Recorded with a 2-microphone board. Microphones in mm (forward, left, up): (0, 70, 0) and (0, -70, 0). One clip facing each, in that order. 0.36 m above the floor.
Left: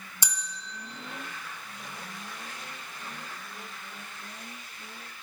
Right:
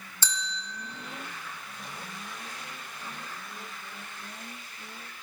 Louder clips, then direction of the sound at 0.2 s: Right 4 dB; 15° left (ahead or behind).